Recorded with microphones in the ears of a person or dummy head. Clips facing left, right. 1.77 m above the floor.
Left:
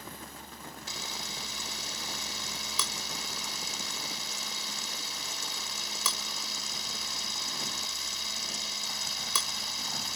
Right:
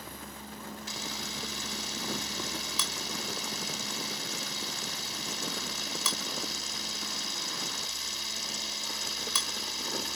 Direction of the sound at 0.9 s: 80° left.